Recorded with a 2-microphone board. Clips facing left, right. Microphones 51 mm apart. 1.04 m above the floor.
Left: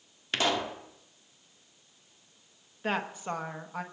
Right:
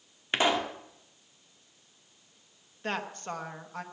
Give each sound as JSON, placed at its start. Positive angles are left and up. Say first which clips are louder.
{"t": 0.3, "sound": "a pop", "louder": "right 2 dB", "side_deg": -20, "distance_m": 1.3}
{"t": 2.8, "sound": "a woman speaking", "louder": "left 3 dB", "side_deg": 10, "distance_m": 1.0}